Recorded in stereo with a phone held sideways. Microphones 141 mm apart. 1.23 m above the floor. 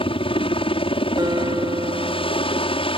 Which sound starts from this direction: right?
A guitar, at 1.2 s.